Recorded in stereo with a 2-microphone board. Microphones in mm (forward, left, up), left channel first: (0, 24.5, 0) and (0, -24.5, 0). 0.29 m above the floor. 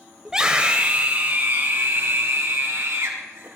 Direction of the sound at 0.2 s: 10° right (ahead or behind).